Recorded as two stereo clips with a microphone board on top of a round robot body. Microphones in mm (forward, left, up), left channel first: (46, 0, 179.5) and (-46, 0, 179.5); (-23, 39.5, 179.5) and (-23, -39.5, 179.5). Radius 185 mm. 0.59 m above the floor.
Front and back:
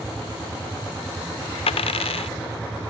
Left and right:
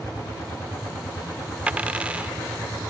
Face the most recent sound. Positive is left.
turn(degrees=-15)